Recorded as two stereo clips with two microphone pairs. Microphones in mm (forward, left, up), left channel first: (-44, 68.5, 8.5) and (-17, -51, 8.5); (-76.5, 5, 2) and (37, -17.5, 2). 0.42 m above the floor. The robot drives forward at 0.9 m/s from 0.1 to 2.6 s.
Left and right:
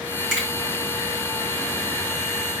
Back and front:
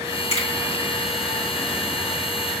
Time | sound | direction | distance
0.3 | a finger snap | 170° right | 5.5 m